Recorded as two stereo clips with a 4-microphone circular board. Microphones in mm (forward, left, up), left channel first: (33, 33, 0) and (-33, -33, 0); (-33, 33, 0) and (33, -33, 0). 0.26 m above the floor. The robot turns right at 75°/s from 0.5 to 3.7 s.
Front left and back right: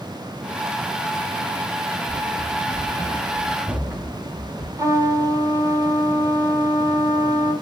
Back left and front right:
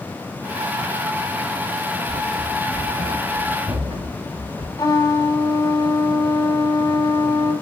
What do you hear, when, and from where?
2.1 s running footsteps: 130° left, 1.4 m; by 4.7 s 60° right, 3.5 m
4.8 s a trumpet: straight behind, 2.5 m